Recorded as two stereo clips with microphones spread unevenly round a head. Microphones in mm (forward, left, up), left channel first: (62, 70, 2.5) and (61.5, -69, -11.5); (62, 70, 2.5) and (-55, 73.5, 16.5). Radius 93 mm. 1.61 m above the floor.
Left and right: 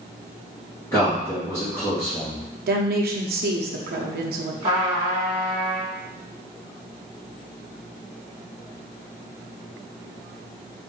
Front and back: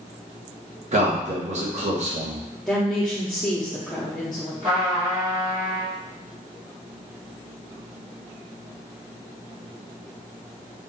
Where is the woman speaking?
90° right, 0.7 m.